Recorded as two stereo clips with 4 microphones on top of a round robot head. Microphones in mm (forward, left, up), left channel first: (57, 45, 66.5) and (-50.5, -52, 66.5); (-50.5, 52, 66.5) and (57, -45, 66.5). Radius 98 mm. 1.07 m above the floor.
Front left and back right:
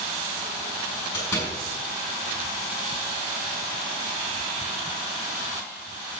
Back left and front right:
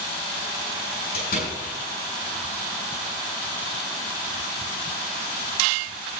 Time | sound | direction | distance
1.1 | a door slam | 110° left | 7 m